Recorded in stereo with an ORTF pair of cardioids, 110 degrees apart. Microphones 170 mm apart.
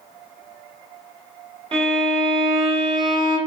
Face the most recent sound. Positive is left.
turn(degrees=-30)